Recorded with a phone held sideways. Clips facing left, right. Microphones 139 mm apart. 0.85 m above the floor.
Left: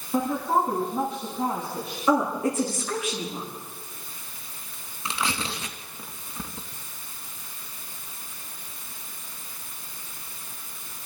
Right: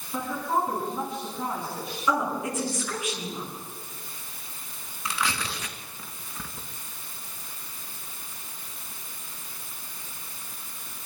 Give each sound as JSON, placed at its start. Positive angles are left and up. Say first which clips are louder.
{"t": 0.1, "sound": "a woman speaking", "louder": "left 4 dB", "side_deg": 35, "distance_m": 7.5}
{"t": 2.1, "sound": "a woman speaking", "louder": "left 4 dB", "side_deg": 35, "distance_m": 9.0}
{"t": 5.0, "sound": "tearing paper", "louder": "left 1 dB", "side_deg": 25, "distance_m": 2.5}